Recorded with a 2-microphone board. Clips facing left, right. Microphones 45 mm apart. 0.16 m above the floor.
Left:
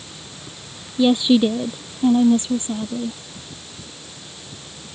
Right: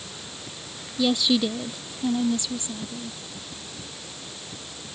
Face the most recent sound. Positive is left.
turn(degrees=40)  # may be behind; listen again after turning